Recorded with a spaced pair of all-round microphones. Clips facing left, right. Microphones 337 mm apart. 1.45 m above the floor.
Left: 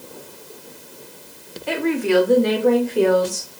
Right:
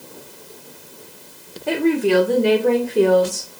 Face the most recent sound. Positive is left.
turn(degrees=-20)  # may be behind; listen again after turning